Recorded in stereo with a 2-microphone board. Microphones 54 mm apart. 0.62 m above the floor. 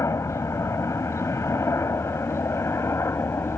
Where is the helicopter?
65° left (ahead or behind); by 3.6 s 55° left (ahead or behind).